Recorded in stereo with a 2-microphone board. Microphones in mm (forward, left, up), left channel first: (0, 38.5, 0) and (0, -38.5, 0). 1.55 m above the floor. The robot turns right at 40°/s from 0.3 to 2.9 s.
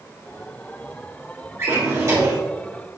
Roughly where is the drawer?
Behind right.